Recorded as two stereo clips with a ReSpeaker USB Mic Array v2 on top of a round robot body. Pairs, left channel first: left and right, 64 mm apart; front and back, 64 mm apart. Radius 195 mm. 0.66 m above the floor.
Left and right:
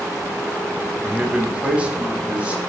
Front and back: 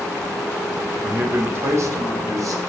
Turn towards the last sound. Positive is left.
turn(degrees=-160)